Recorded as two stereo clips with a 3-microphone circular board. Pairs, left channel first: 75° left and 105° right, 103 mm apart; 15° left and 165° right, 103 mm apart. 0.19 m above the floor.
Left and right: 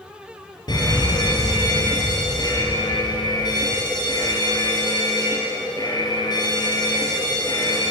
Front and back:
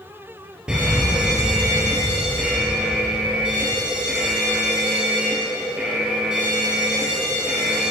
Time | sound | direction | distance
0.7 | an alarm | 115° left | 2.5 m